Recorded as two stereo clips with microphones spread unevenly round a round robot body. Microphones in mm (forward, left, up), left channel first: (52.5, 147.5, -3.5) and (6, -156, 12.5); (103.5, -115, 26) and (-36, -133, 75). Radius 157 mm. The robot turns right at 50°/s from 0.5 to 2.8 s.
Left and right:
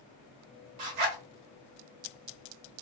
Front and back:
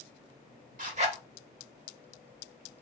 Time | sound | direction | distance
0.8 | a zipper | 140° right | 1.3 m